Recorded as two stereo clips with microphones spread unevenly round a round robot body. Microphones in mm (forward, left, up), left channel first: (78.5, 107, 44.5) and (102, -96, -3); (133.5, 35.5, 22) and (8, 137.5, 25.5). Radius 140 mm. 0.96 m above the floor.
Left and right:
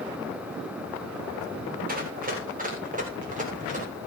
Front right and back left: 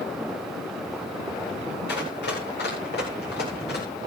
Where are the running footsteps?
35° right, 9 m; by 3.9 s 30° right, 10 m.